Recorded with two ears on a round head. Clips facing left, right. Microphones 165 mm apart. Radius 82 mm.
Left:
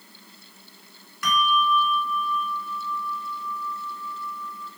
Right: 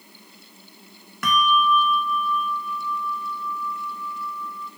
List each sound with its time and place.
1.2 s a bell: 45° right (ahead or behind), 1.4 m